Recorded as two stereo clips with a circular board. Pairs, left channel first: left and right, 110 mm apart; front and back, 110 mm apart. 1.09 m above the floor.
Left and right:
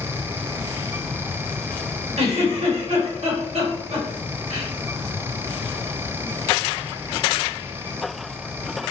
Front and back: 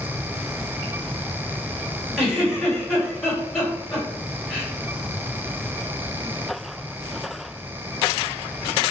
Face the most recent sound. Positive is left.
turn(degrees=-90)